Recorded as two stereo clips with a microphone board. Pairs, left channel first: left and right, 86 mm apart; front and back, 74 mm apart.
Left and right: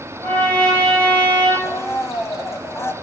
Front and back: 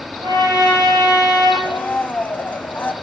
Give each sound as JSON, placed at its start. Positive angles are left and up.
{"t": 0.2, "sound": "a trumpet", "azimuth_deg": 160, "distance_m": 5.5}
{"t": 1.6, "sound": "a blender", "azimuth_deg": 55, "distance_m": 0.9}